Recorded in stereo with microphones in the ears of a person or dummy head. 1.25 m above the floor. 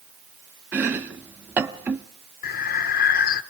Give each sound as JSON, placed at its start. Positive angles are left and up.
{"t": 0.7, "sound": "chopping", "side_deg": -15, "distance_m": 0.9}
{"t": 2.4, "sound": "breathing", "side_deg": 50, "distance_m": 1.1}